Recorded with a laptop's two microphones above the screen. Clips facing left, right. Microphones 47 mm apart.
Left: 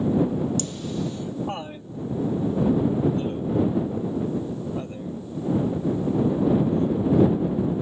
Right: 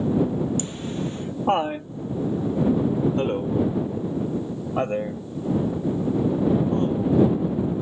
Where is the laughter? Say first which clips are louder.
Even; 25° right (ahead or behind); by 7.2 s 60° right (ahead or behind).